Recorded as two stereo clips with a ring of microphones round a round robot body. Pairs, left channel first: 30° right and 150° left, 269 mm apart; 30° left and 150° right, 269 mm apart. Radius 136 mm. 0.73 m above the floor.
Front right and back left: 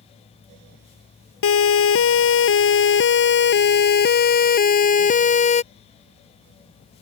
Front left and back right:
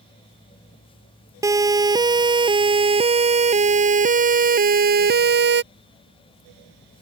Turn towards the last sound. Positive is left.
turn(degrees=-95)